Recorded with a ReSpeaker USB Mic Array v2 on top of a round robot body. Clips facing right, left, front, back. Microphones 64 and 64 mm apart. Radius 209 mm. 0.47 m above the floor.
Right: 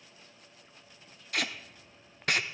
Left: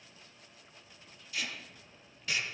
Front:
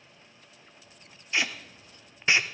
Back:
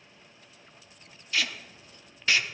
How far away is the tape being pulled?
About 0.6 m.